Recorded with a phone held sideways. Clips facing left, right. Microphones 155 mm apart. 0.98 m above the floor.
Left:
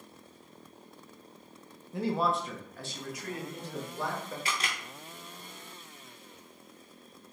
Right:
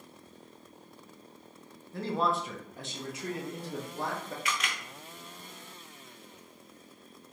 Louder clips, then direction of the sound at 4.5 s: Right 2 dB; 30° left (ahead or behind).